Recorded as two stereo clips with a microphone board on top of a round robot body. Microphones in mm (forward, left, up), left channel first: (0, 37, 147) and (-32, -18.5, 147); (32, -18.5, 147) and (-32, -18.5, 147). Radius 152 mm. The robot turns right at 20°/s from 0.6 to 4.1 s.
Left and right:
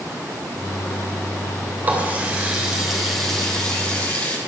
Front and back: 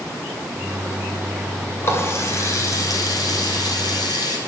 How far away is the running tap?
About 3 m.